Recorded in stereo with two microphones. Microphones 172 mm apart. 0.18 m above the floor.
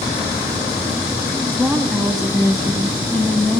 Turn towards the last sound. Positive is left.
turn(degrees=0)  # may be behind; listen again after turning